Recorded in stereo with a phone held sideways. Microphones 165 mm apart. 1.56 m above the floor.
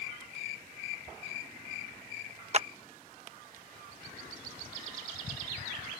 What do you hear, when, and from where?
2.5 s a clap: 45° right (ahead or behind)